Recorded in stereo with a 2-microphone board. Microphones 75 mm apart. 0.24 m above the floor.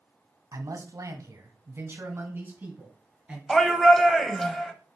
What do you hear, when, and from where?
0.5 s a man speaking: 45° right (ahead or behind), 1.4 m; by 3.4 s 15° right (ahead or behind), 3 m
3.5 s a shout: 5° left (ahead or behind), 1.0 m